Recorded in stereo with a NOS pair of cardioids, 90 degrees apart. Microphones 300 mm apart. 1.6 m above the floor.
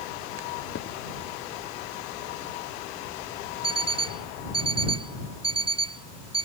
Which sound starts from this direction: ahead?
An alarm clock, at 3.6 s.